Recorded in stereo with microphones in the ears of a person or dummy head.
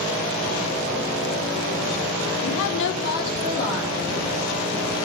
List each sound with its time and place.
2.4 s a woman speaking: 75° left (ahead or behind), 0.7 m; by 5.0 s 35° left (ahead or behind), 4 m